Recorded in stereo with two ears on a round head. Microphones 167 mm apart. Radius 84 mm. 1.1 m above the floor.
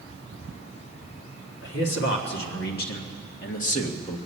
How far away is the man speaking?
About 2 m.